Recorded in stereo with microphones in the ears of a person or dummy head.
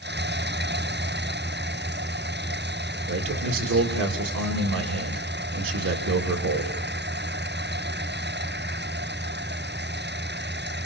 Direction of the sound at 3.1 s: 80° right.